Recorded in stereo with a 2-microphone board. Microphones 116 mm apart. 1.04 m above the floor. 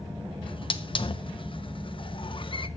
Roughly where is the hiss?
Left.